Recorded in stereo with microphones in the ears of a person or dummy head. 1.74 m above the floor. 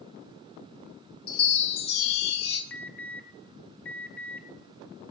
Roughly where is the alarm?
Centre.